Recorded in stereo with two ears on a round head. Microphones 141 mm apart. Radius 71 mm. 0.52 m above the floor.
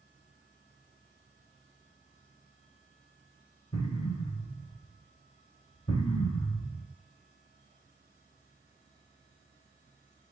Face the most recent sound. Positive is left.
turn(degrees=35)  # may be behind; listen again after turning